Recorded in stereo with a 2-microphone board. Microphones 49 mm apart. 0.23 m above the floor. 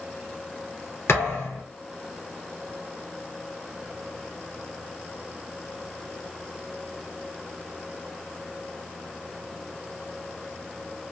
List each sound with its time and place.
1.1 s a thud: 60° left (ahead or behind), 1.7 m